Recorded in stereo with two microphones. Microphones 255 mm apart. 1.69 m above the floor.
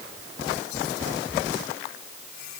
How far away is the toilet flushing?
I don't hear a toilet flushing.